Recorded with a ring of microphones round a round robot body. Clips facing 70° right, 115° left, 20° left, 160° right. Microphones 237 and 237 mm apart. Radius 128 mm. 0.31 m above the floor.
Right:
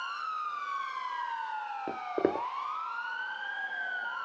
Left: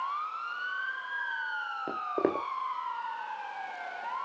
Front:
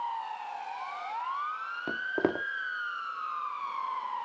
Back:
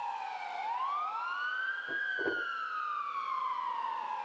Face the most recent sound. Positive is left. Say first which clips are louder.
# even, front 9 dB
turn(degrees=20)